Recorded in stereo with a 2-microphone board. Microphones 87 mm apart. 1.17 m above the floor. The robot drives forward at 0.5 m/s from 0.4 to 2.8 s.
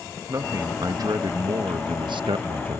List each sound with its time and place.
0.3 s a man speaking: 40° right (ahead or behind); by 2.8 s 75° right (ahead or behind)